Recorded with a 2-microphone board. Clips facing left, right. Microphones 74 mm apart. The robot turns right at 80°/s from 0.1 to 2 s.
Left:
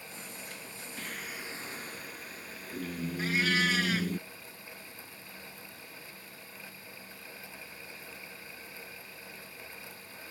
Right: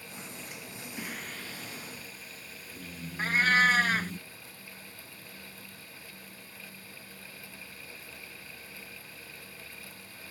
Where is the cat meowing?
45° right (ahead or behind).